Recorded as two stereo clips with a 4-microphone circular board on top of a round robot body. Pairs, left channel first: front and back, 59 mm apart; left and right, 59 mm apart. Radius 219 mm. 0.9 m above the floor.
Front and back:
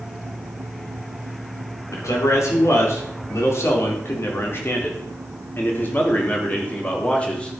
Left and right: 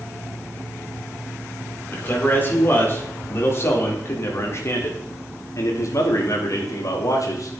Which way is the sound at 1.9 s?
35° left.